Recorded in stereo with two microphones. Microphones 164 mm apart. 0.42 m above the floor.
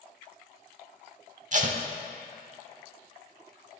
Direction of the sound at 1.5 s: 50° right (ahead or behind).